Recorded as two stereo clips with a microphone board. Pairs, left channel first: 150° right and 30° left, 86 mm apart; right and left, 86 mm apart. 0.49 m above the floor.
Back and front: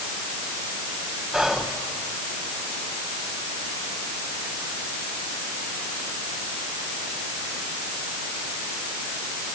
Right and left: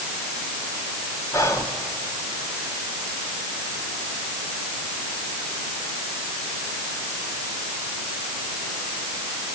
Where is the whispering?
50° right, 1.8 m.